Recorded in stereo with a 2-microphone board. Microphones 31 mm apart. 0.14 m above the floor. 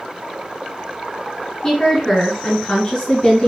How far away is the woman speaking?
About 1.2 m.